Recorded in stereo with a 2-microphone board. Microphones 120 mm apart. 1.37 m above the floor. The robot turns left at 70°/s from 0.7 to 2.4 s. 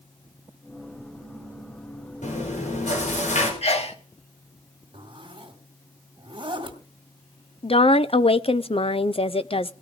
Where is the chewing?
80° left, 5 m; by 3.5 s 85° left, 5 m.